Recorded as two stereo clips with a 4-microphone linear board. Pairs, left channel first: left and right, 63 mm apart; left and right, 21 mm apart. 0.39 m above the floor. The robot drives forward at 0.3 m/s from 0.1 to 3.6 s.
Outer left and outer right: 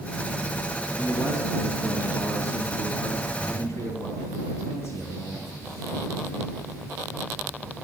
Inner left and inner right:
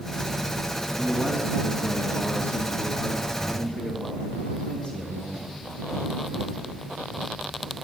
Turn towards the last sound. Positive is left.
turn(degrees=50)  # may be behind; listen again after turning